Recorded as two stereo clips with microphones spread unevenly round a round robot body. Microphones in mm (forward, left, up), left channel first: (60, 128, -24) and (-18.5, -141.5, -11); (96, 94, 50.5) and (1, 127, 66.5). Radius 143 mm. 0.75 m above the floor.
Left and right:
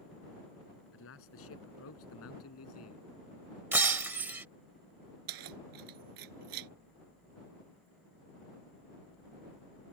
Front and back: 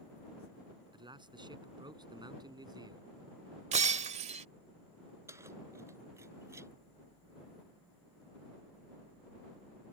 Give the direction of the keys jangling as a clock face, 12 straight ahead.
4 o'clock.